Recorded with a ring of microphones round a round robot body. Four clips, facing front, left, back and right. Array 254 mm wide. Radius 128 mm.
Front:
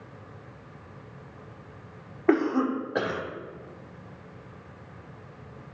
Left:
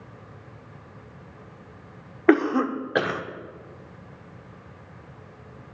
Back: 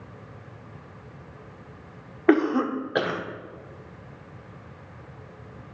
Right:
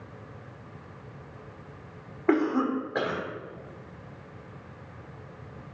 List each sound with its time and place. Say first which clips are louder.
2.3 s a cough: left 4 dB, back 3 dB; 110° left, 0.9 m